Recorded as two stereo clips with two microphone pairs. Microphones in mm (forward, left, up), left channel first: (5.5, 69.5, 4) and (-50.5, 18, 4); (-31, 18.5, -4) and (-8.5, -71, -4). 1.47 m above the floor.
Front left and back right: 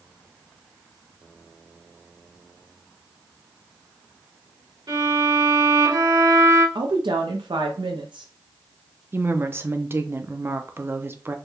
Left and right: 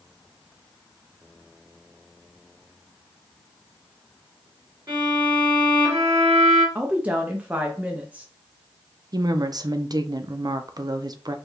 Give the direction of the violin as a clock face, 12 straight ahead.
4 o'clock.